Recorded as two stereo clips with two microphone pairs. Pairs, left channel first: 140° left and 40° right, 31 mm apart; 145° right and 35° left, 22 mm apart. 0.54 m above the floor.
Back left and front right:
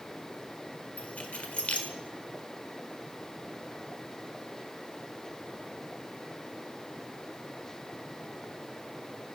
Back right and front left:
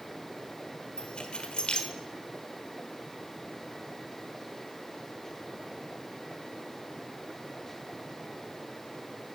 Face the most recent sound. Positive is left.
turn(degrees=-175)